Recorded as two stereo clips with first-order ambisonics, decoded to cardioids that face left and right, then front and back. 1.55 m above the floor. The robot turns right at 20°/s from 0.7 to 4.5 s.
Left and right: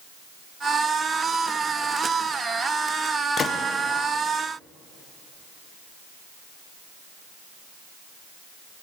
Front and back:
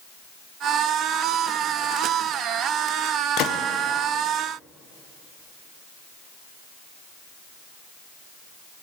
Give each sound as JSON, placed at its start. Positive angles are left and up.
{"t": 3.4, "sound": "a gunshot", "azimuth_deg": 30, "distance_m": 0.6}